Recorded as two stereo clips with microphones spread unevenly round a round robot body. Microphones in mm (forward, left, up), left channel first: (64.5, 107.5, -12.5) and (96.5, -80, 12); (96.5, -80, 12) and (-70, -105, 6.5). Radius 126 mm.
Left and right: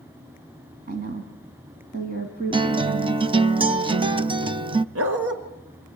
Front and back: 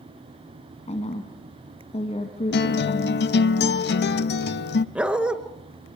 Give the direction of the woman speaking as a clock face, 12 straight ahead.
1 o'clock.